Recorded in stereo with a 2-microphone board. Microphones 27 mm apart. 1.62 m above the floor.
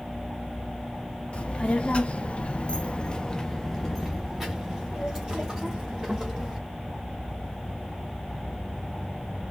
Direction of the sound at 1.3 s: 45° left (ahead or behind).